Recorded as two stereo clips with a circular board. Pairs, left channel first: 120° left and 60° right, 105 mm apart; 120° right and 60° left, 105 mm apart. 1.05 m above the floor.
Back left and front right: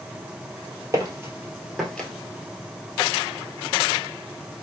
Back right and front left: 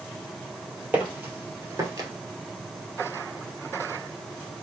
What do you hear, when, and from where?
0.9 s footsteps: 10° right, 1.6 m; by 2.1 s 50° left, 1.2 m